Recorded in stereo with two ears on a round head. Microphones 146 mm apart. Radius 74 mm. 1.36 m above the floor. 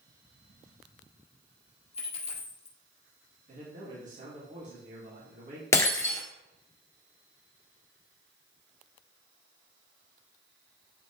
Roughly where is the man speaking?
Right.